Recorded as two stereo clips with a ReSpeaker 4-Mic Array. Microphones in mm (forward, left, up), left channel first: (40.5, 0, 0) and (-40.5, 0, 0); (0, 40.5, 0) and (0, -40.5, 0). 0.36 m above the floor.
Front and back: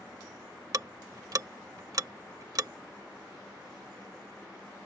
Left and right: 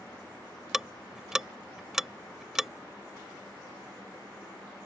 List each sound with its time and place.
0.7 s ticking: 175° right